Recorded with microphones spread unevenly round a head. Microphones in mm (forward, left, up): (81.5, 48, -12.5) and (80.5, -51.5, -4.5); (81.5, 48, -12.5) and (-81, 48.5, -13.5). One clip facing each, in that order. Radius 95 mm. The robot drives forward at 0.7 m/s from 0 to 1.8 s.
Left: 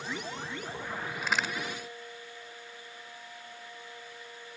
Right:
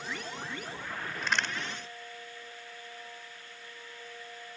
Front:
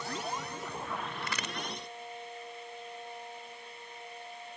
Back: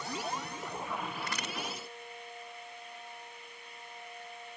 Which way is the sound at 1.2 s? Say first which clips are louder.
Even, even; 5° left.